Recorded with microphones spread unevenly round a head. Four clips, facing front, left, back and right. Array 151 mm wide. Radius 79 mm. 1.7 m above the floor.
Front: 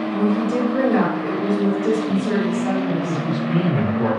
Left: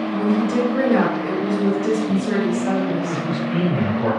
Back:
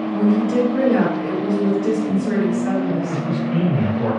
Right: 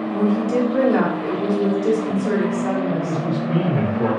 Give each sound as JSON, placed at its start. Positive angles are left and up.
{"t": 0.1, "sound": "a woman speaking", "azimuth_deg": -55, "distance_m": 1.4}
{"t": 2.9, "sound": "a man speaking", "azimuth_deg": -45, "distance_m": 1.3}